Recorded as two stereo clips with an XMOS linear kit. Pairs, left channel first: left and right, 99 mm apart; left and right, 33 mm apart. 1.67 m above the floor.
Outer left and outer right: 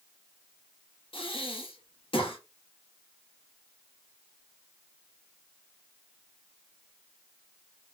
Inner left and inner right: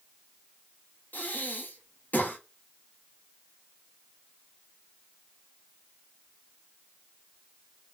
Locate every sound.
1.1 s breathing: 60° left (ahead or behind), 0.8 m